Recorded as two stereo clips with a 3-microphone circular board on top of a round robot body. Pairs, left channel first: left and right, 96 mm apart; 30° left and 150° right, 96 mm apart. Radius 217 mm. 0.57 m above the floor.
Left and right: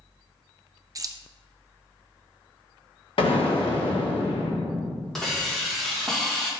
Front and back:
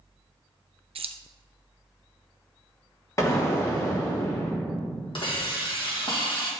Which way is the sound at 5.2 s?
5° left.